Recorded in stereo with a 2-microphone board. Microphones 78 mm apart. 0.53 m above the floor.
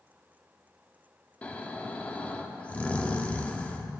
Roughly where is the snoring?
Centre.